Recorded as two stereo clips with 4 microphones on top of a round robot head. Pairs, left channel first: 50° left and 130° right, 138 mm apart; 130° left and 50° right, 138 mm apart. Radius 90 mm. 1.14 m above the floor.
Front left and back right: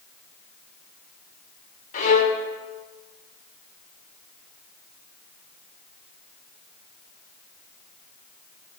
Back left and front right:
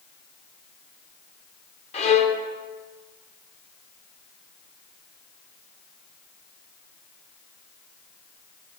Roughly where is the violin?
Left.